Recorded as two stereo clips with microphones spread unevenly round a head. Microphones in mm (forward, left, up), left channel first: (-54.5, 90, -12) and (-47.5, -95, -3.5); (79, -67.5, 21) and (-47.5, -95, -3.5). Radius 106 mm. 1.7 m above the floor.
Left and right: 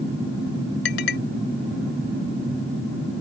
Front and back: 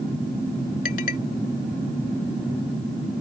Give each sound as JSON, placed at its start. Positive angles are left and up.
{"t": 0.8, "sound": "a clink", "azimuth_deg": 50}